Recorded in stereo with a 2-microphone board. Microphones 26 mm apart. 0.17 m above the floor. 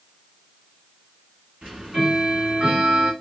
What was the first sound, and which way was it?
Ticking, 40° right (ahead or behind).